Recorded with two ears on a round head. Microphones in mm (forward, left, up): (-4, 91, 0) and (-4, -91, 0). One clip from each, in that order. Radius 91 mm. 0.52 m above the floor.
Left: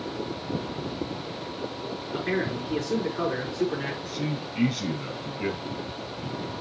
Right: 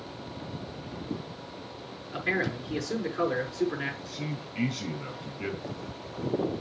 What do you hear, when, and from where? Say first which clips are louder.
2.1 s a man speaking: even; 25° right (ahead or behind), 5.5 m
4.0 s a man speaking: left 6 dB; 10° right (ahead or behind), 4 m